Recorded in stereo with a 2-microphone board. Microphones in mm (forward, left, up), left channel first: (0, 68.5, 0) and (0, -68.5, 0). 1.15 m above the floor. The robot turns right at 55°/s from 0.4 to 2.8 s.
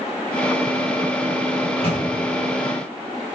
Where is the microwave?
60° left (ahead or behind), 5.5 m; by 2.0 s 35° left (ahead or behind), 5.5 m.